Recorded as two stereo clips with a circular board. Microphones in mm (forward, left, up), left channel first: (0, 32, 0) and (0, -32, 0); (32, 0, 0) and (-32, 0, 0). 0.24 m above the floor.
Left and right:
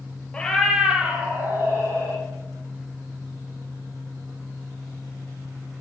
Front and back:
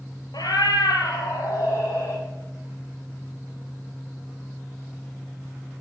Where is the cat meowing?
15° left, 1.2 m; by 2.2 s 45° right, 2.5 m.